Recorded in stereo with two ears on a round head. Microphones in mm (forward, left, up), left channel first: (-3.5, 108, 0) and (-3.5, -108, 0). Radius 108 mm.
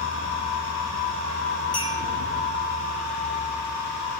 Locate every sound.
1.7 s a clink: 5° left (ahead or behind), 4 m